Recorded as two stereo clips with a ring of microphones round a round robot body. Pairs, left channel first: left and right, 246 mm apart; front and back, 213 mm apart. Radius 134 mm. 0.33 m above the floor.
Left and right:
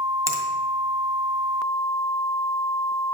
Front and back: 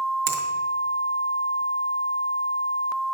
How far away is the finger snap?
About 2 m.